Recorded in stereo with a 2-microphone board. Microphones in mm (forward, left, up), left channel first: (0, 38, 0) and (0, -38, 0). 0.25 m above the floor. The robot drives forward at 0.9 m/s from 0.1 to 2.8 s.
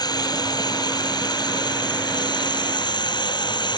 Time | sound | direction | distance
0.0 | running water | 65° left (ahead or behind) | ?